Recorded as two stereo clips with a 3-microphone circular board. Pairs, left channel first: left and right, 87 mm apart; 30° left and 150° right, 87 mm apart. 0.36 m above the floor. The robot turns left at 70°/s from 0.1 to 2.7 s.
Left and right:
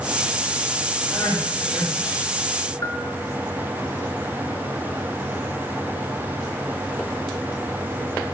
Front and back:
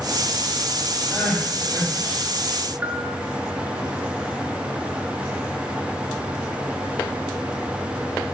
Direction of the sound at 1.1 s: 130° left.